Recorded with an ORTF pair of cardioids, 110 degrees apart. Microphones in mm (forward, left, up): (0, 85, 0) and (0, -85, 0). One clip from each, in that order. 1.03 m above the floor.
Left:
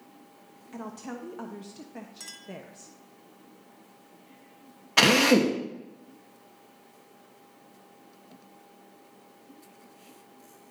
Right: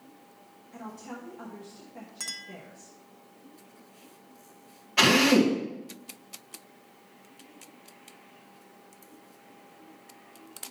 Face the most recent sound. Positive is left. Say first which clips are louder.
# left 1 dB
turn(degrees=55)